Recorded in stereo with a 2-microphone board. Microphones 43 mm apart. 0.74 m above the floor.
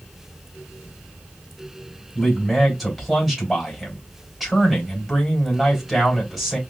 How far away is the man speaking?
About 3.5 m.